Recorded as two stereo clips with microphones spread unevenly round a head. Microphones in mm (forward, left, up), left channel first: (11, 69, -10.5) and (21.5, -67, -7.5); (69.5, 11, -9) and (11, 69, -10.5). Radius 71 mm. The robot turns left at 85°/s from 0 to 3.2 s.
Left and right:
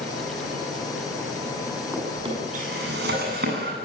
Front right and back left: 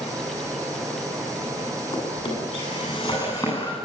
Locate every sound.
1.9 s a drawer: 5° right, 9.5 m; by 3.8 s 110° right, 9.5 m